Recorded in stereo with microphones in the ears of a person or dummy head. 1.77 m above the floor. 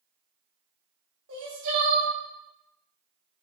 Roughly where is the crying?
Right.